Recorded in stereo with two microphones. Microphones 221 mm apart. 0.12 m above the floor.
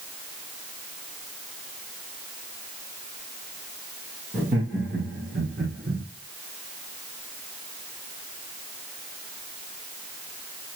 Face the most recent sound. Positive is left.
turn(degrees=-55)  # may be behind; listen again after turning